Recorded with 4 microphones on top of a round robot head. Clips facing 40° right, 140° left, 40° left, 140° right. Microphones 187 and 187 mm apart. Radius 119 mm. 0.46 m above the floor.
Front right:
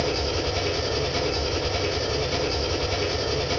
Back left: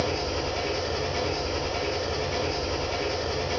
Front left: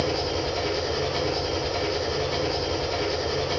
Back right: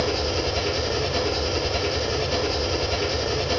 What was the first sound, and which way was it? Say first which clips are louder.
An engine running: front right 2 dB, back right 1 dB; 80° right.